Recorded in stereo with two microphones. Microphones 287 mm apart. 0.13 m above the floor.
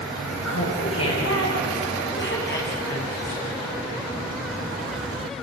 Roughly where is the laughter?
Left.